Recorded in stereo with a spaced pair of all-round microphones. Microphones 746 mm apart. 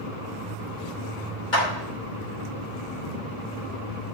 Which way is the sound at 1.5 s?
80° left.